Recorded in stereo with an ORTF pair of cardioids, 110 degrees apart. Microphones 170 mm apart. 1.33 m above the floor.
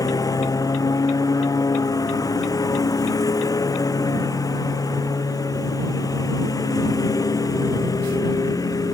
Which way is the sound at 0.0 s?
20° left.